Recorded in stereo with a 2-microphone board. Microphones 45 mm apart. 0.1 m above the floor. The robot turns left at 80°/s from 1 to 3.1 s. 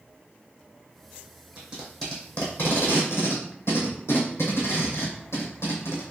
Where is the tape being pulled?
30° right (ahead or behind), 2 m; by 6.0 s 75° left (ahead or behind), 2 m.